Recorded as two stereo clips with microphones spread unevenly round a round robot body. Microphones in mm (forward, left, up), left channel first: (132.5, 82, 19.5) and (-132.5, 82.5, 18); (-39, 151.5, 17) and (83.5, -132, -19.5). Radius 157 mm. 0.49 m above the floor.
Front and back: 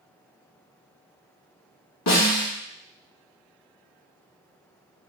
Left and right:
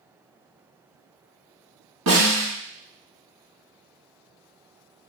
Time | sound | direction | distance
2.1 | a snare drum | 25° right | 2 m